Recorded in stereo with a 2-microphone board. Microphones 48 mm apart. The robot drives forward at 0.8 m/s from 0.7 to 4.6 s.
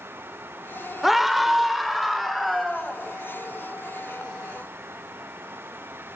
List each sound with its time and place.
1.0 s a scream: 5° right (ahead or behind), 0.9 m; by 3.0 s centre (ahead or behind), 2 m